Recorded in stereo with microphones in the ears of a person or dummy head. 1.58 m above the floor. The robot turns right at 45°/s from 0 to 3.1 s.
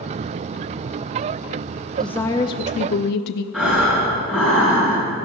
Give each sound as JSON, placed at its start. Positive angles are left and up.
{"t": 2.0, "sound": "a woman speaking", "azimuth_deg": 0, "distance_m": 0.5}
{"t": 3.5, "sound": "breathing", "side_deg": -5, "distance_m": 6.0}